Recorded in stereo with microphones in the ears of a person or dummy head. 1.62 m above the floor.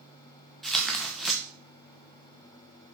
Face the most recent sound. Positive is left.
turn(degrees=0)  # may be behind; listen again after turning